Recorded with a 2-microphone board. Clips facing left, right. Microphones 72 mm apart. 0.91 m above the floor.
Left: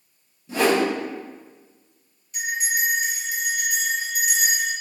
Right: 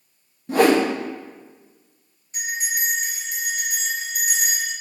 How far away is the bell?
About 2.0 m.